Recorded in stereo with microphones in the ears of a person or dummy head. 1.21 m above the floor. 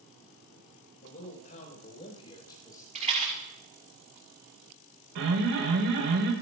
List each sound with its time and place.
1.0 s a man speaking: 45° left (ahead or behind), 6 m; by 2.9 s 15° left (ahead or behind), 5 m
3.0 s a rattle: 40° right (ahead or behind), 6 m
5.2 s an alarm: 70° right (ahead or behind), 5 m